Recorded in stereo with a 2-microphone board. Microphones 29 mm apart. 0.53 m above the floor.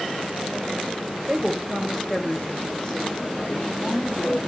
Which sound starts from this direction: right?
A woman speaking, at 1.3 s.